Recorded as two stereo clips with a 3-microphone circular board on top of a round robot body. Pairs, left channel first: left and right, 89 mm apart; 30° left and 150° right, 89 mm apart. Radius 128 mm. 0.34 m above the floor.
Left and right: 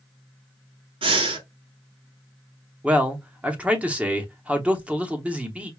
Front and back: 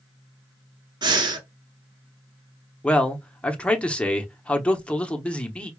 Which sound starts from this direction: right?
Breathing, at 1.0 s.